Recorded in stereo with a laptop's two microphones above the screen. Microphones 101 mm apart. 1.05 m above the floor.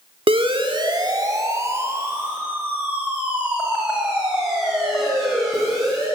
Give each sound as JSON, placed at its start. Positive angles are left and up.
{"t": 0.3, "sound": "a siren", "side_deg": -65, "distance_m": 2.0}